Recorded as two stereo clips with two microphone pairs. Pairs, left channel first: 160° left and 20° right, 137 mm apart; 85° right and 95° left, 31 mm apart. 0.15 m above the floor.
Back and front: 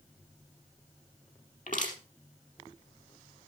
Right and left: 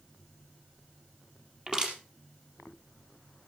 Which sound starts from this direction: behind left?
Crushing, at 1.7 s.